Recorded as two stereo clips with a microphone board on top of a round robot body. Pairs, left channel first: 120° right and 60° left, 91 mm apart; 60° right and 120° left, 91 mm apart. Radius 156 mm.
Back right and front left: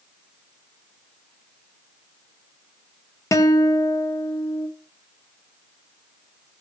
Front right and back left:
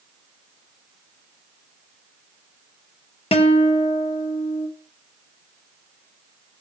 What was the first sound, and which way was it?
A guitar, 60° right.